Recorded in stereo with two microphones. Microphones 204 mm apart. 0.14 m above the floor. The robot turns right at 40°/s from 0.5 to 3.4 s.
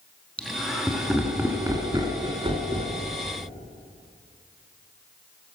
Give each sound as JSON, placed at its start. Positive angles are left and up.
{"t": 0.4, "sound": "laughter", "side_deg": 5, "distance_m": 1.4}